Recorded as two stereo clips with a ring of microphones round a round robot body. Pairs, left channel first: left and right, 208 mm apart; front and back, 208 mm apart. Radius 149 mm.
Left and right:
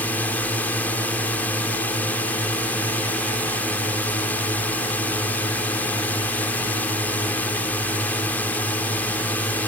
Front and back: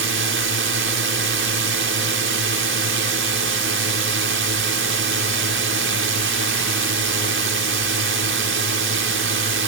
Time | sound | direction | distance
0.0 | a drone | 175° left | ?